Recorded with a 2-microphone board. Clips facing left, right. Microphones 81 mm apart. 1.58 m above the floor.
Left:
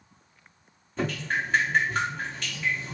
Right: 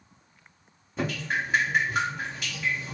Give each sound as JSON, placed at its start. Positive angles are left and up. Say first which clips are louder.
{"t": 1.0, "sound": "dripping", "louder": "left 1 dB", "side_deg": -5, "distance_m": 2.5}